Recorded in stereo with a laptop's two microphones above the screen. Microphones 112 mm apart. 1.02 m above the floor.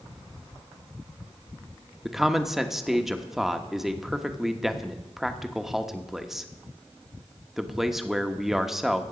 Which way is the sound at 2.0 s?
Centre (ahead or behind).